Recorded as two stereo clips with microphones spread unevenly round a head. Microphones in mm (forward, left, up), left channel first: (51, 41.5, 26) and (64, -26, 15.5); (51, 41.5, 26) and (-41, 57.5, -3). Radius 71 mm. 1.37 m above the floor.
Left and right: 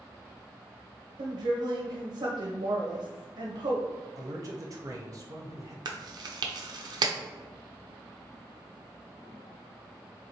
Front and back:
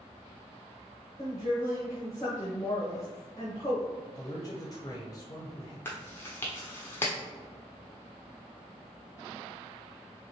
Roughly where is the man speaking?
Right.